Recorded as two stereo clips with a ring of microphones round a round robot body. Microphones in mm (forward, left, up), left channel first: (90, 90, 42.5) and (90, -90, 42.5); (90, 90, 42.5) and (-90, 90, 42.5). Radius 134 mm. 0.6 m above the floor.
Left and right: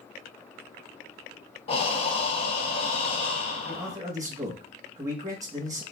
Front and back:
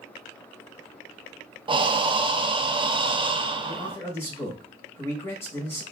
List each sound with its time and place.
1.7 s breathing: 130° left, 0.7 m
3.7 s a man speaking: 55° right, 1.0 m